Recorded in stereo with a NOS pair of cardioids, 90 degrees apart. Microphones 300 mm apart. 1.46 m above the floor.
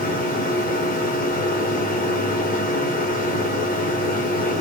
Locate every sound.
0.0 s a machine running: 30° left, 1.5 m